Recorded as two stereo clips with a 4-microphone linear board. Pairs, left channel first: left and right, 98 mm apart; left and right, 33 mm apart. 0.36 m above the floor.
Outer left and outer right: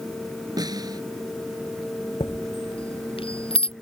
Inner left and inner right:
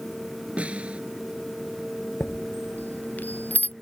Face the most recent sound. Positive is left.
turn(degrees=85)